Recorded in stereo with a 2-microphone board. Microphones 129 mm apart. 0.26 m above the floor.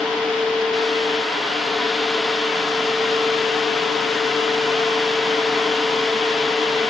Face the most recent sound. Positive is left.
No sound to turn to.